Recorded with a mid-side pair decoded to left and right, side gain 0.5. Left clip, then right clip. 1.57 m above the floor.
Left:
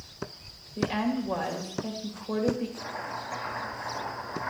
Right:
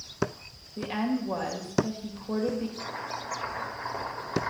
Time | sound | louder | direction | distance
0.8 | a woman speaking | left 2 dB | straight ahead | 2.5 m
2.8 | chopping | even | 65° right | 3.5 m